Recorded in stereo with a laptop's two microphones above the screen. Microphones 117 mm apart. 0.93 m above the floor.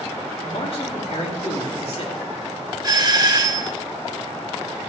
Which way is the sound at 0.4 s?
65° left (ahead or behind).